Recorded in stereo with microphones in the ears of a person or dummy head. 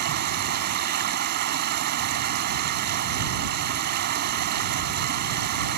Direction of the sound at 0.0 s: 55° right (ahead or behind).